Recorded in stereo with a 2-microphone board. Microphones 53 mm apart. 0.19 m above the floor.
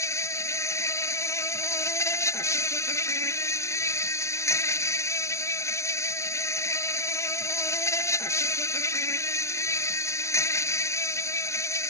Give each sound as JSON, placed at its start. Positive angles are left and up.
{"t": 0.0, "sound": "an insect", "side_deg": 65}